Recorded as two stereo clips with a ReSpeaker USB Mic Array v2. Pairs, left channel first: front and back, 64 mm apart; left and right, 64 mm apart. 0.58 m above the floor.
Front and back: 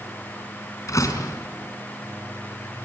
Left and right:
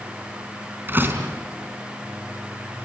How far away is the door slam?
About 3.5 m.